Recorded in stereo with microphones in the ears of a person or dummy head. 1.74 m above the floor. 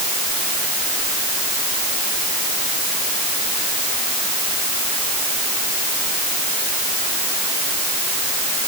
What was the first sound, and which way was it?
Only background noise.